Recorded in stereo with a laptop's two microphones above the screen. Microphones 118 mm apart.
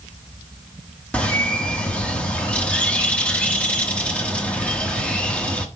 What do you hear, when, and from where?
1.1 s a bird: 10° left (ahead or behind), 0.9 m